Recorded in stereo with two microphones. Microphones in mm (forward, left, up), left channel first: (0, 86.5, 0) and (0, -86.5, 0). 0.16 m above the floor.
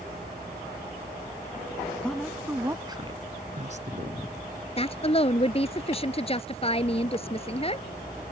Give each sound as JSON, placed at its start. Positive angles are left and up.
{"t": 2.0, "sound": "a woman speaking", "side_deg": 5}
{"t": 4.8, "sound": "a woman speaking", "side_deg": 35}